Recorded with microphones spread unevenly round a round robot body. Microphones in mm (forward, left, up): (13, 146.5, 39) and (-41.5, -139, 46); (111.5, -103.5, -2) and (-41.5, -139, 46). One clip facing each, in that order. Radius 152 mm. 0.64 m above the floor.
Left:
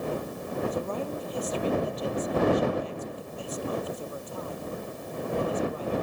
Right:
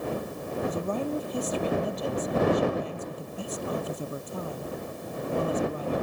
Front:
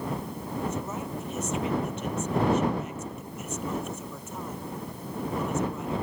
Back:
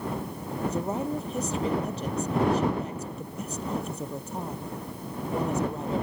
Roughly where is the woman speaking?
Behind right.